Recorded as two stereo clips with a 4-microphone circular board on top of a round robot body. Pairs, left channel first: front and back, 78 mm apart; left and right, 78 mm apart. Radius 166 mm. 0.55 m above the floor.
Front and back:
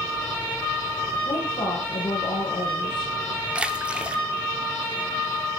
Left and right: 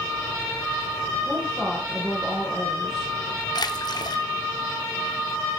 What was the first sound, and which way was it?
A woman speaking, 5° left.